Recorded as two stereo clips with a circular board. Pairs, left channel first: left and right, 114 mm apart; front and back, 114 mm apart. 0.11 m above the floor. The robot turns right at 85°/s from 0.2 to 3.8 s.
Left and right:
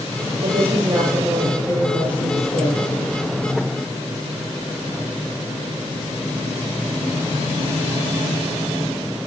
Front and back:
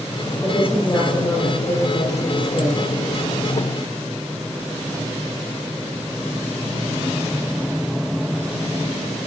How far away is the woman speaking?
About 2.5 m.